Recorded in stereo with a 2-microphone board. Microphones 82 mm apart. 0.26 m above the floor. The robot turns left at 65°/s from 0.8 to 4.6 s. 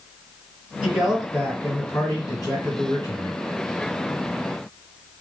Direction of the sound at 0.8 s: 150° right.